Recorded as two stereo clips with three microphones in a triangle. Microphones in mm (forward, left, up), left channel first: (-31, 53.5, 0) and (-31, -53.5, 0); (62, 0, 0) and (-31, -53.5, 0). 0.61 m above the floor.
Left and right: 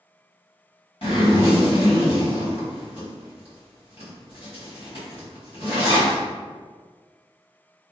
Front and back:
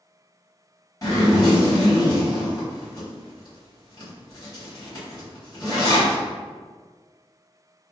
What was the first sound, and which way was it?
A zipper, 80° left.